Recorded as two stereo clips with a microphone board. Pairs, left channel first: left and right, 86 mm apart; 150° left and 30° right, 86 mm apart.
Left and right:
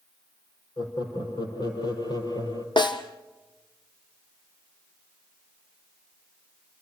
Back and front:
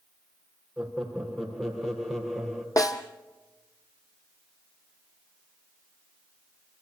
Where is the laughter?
60° left, 5 m; by 2.7 s 65° left, 3.5 m.